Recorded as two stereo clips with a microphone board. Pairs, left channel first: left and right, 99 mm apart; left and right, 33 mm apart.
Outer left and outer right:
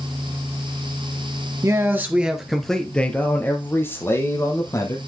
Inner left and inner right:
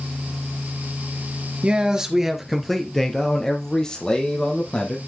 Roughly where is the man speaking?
Right.